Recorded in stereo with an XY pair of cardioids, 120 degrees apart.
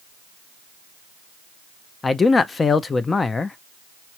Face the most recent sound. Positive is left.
turn(degrees=25)